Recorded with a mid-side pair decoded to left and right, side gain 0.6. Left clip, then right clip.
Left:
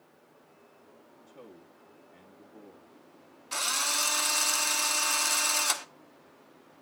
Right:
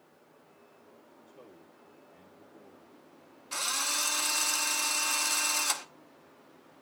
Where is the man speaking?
30° left, 1.6 m.